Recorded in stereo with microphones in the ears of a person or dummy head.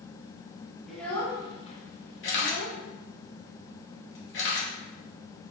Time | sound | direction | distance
0.9 | a child speaking | 5° right (ahead or behind) | 0.8 m
2.2 | a camera shutter | 60° left (ahead or behind) | 0.8 m